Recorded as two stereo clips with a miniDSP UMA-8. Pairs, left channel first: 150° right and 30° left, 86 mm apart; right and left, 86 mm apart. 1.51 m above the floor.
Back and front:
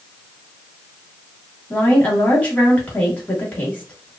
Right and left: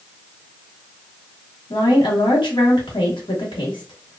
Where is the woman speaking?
80° right, 1.2 m.